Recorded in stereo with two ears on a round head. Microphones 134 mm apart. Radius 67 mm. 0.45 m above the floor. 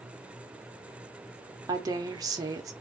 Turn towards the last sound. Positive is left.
turn(degrees=-25)  # may be behind; listen again after turning